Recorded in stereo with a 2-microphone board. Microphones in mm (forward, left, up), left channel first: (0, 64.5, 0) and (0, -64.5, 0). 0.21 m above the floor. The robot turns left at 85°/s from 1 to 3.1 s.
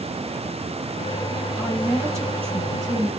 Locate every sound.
1.6 s a woman speaking: 25° left, 4 m; by 3.1 s 105° right, 4 m